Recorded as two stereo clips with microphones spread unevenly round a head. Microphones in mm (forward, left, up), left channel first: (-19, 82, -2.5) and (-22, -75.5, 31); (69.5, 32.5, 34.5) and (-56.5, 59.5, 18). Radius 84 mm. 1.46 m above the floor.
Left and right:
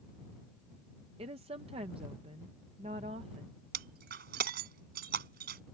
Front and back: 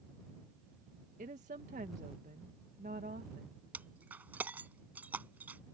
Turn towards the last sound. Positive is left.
turn(degrees=-110)